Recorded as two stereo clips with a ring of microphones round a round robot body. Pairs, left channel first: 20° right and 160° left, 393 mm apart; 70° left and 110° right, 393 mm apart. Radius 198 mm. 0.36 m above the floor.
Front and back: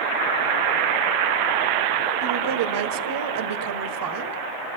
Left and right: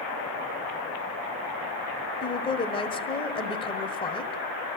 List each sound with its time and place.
2.2 s a woman speaking: 140° left, 1.7 m